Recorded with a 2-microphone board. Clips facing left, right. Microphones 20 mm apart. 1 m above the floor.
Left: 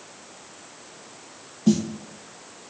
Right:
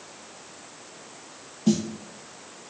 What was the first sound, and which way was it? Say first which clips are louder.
A snare drum: left 2 dB; centre (ahead or behind).